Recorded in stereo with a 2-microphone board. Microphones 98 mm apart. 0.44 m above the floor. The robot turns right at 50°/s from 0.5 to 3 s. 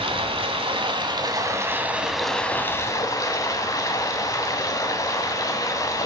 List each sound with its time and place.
0.0 s running water: 85° right, 1.2 m; by 6.1 s 40° left, 1.2 m